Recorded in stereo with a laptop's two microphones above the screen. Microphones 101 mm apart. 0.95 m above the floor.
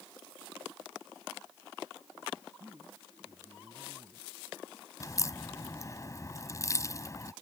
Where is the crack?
30° left (ahead or behind).